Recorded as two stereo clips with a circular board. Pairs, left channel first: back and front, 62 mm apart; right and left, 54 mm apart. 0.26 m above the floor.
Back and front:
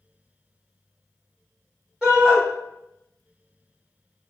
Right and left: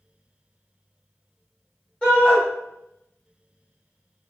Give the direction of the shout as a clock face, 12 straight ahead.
2 o'clock.